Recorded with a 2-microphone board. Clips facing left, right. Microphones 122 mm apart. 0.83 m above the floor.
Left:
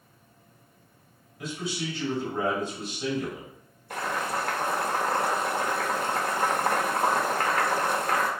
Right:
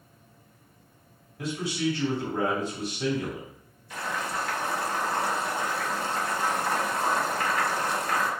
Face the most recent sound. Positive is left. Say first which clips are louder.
# left 2 dB
turn(degrees=55)  # may be behind; listen again after turning